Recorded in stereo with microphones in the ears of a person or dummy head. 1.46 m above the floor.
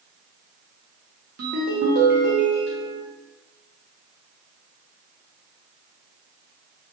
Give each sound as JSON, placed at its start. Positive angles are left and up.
{"t": 1.4, "sound": "a ringtone", "side_deg": -45, "distance_m": 0.6}